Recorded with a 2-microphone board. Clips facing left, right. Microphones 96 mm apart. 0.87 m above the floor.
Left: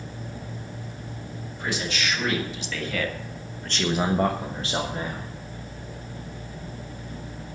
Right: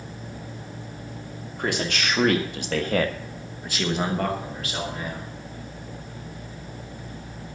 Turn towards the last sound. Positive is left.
turn(degrees=40)  # may be behind; listen again after turning